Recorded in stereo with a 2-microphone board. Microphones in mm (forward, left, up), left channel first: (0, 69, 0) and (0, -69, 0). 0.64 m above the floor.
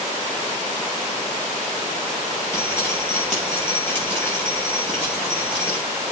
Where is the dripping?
15° left (ahead or behind), 5.5 m.